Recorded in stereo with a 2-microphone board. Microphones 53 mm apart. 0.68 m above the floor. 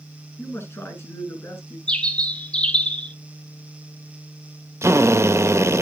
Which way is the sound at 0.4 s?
55° left (ahead or behind).